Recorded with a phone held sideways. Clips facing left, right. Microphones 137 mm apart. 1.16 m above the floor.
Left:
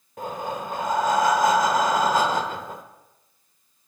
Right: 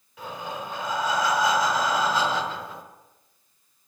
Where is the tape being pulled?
No tape being pulled in this recording.